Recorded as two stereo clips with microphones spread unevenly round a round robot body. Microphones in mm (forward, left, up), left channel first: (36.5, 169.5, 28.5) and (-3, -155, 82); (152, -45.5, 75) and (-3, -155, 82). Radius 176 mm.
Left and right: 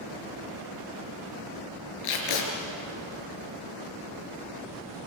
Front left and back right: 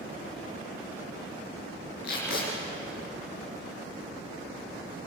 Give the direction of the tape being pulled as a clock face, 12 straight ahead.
9 o'clock.